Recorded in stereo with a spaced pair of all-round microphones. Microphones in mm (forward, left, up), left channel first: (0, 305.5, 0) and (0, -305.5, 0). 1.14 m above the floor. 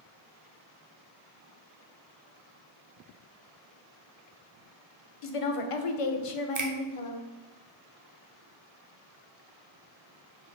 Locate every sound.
5.2 s a woman speaking: 60° left (ahead or behind), 0.6 m
6.5 s a finger snap: 30° right (ahead or behind), 0.5 m